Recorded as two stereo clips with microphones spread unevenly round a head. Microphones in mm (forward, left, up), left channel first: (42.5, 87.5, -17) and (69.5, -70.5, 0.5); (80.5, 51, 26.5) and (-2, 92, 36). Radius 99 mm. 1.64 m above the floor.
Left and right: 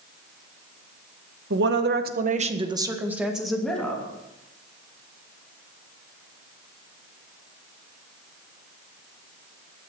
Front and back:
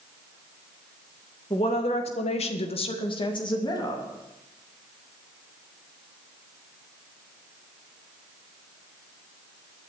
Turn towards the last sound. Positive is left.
turn(degrees=20)